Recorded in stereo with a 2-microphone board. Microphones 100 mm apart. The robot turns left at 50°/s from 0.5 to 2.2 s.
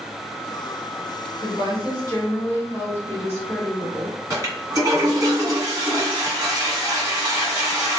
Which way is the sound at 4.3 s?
35° right (ahead or behind).